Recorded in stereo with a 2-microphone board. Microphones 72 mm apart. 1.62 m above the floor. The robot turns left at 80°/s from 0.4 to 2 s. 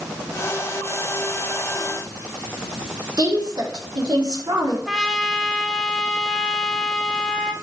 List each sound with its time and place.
3.2 s a woman speaking: 75° right (ahead or behind), 4 m
4.9 s a trumpet: centre (ahead or behind), 1.4 m